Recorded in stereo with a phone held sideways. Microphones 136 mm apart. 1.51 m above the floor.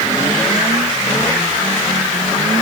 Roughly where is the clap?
I don't hear a clap.